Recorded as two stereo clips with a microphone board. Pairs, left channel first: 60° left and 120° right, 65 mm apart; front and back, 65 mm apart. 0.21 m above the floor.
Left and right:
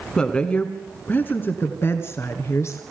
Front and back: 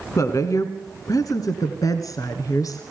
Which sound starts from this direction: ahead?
A woman speaking, at 0.2 s.